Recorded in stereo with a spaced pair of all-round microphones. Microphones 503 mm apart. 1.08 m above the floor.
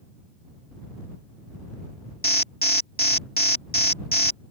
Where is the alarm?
20° left (ahead or behind).